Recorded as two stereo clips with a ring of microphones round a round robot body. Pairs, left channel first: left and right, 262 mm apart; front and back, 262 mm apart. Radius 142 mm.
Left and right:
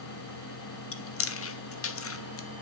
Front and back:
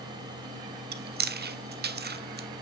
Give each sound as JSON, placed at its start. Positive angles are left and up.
{"t": 0.9, "sound": "chewing", "azimuth_deg": 125, "distance_m": 1.1}